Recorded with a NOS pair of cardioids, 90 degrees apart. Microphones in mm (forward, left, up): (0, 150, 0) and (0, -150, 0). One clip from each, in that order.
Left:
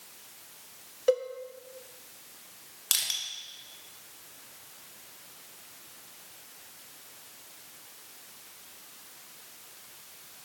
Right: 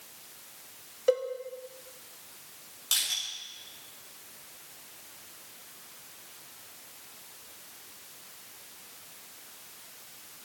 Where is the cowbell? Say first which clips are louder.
Even; 5° left, 1.0 m.